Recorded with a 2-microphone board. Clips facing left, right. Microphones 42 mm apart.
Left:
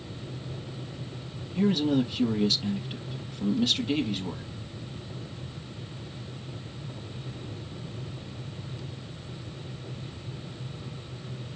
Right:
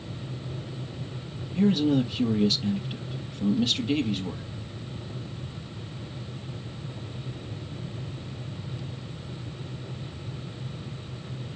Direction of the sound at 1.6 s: Centre (ahead or behind).